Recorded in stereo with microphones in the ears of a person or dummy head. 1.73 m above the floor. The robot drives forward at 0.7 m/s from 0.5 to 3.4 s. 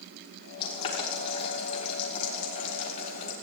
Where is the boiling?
30° left (ahead or behind), 5.5 m; by 3.3 s 45° left (ahead or behind), 4.5 m.